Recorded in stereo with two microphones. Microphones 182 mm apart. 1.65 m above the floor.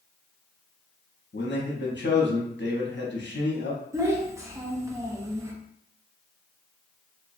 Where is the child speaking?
15° right (ahead or behind), 0.5 m.